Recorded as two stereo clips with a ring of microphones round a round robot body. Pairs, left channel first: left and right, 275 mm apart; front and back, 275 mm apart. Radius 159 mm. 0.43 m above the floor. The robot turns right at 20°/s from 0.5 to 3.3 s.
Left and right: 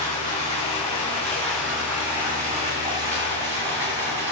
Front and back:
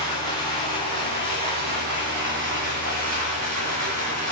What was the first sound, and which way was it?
Running water, 160° left.